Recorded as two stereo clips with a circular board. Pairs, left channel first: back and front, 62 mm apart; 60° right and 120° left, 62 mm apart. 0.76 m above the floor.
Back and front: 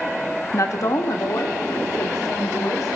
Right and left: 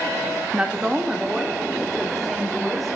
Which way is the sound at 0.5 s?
175° right.